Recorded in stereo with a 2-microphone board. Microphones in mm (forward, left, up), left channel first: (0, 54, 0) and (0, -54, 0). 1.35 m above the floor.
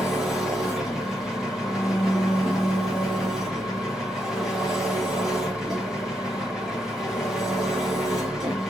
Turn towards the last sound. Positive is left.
turn(degrees=-5)  # may be behind; listen again after turning